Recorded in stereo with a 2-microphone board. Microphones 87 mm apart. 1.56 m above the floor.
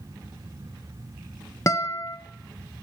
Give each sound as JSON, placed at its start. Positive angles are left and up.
{"t": 1.7, "sound": "a guitar", "side_deg": 35, "distance_m": 0.6}